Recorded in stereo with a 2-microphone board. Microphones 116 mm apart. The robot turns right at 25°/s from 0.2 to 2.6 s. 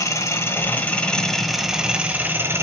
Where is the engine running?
145° left, 1.1 m; by 2.6 s 155° right, 1.1 m.